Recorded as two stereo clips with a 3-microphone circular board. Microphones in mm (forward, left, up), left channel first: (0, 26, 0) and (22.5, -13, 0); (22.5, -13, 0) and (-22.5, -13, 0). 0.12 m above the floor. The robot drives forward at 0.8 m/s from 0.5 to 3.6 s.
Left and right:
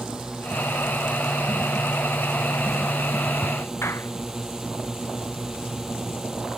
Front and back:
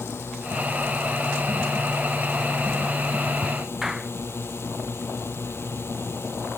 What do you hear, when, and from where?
0.0 s a drone: 15° left
3.8 s a clap: 100° left